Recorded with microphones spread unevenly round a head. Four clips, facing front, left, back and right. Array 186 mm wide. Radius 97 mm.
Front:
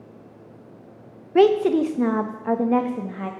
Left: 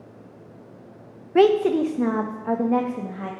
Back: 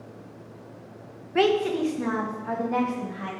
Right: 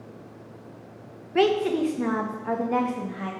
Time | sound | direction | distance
1.4 | a woman speaking | 40° left | 0.8 m